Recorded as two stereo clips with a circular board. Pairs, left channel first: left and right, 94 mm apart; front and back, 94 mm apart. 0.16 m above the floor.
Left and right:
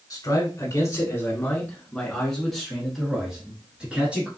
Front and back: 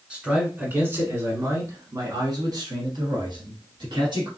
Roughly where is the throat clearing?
No throat clearing in this recording.